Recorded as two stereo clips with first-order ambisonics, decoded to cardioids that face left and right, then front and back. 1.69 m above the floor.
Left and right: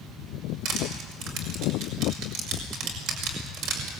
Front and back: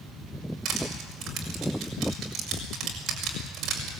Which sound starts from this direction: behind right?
Crushing, at 0.7 s.